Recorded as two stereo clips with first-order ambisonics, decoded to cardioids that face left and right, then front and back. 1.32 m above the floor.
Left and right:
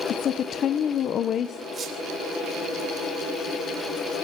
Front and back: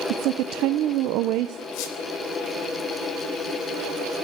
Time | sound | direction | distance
0.1 | a woman speaking | 145° left | 0.8 m
1.7 | a squeak | 25° right | 3 m